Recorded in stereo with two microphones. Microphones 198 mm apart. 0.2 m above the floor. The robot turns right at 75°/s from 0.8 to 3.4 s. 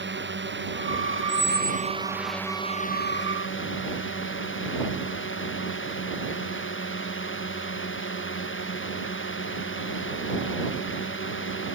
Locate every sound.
0.0 s a drone: 110° right; by 11.8 s 85° left
1.3 s a squeak: 170° left; by 1.9 s 145° right